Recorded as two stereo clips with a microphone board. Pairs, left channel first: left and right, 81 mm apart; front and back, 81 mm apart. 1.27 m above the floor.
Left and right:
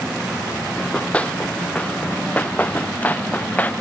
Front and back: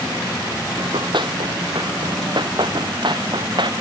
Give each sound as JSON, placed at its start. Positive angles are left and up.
{"t": 0.8, "sound": "running footsteps", "azimuth_deg": 165}